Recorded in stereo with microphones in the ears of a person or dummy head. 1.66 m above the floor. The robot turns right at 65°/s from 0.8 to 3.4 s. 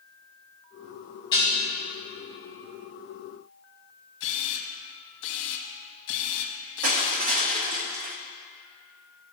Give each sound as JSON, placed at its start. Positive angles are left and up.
{"t": 1.3, "sound": "dishes clattering", "side_deg": 30, "distance_m": 3.0}
{"t": 4.2, "sound": "a camera shutter", "side_deg": 60, "distance_m": 1.1}
{"t": 6.8, "sound": "crushing", "side_deg": -45, "distance_m": 0.7}